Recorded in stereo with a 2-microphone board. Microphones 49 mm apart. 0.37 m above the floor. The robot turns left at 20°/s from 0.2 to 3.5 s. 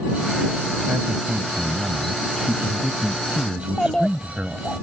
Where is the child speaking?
15° left (ahead or behind).